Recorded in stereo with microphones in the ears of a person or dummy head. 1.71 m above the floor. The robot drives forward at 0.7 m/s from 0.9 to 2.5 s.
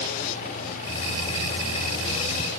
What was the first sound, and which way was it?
Only background noise.